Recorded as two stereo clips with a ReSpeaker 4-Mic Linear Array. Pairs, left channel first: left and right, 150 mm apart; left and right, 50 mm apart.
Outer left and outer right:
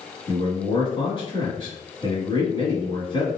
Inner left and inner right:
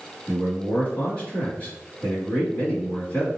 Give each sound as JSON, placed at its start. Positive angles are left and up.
{"t": 0.3, "sound": "a man speaking", "side_deg": 35, "distance_m": 1.7}